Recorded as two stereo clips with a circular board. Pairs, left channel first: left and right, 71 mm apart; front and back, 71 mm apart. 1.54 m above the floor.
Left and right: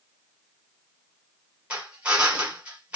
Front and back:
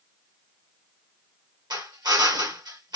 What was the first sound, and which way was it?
A drill, 160° right.